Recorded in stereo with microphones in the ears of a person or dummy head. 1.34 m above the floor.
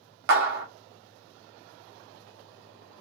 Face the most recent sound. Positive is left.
turn(degrees=-60)  # may be behind; listen again after turning